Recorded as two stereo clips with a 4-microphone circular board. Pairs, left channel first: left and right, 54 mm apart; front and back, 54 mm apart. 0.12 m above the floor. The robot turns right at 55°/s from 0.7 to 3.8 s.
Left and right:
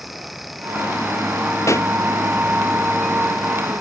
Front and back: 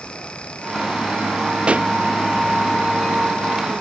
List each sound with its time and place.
1.7 s a pop: 110° left; by 1.9 s 125° left